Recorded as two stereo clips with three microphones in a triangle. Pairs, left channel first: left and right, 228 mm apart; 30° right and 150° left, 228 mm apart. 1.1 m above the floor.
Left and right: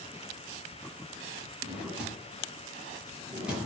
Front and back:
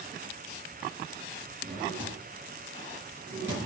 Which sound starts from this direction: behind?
A drawer, at 1.6 s.